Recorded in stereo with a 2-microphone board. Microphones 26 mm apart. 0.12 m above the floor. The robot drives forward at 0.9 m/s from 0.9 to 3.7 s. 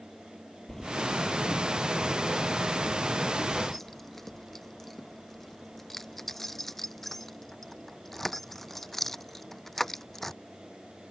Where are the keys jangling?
15° left (ahead or behind); by 10.3 s 5° left (ahead or behind).